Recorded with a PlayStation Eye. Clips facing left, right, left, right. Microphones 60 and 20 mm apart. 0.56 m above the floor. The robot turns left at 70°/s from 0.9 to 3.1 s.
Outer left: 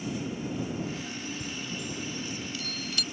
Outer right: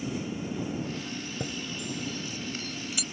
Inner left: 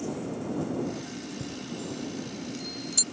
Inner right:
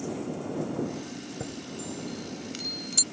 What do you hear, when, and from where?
1.4 s a chime: 60° right (ahead or behind); by 3.0 s 5° right (ahead or behind)